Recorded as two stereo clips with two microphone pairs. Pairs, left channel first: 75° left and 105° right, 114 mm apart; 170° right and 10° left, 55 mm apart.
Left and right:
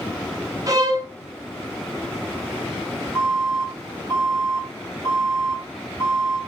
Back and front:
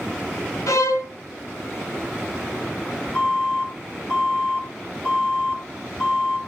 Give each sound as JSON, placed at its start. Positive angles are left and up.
{"t": 0.7, "sound": "a violin", "azimuth_deg": -165, "distance_m": 0.6}
{"t": 3.1, "sound": "an alarm", "azimuth_deg": 130, "distance_m": 2.5}